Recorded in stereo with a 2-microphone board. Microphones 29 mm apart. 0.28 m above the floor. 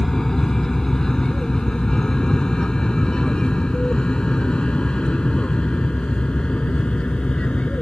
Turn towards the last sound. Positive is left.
turn(degrees=40)  # may be behind; listen again after turning